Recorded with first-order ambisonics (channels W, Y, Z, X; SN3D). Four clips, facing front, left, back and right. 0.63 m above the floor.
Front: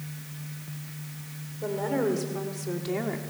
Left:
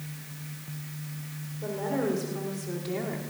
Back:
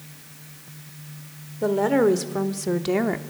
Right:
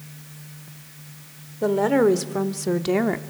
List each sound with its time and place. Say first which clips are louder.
1.6 s a woman speaking: right 11 dB, back 8 dB; 125° right, 1.8 m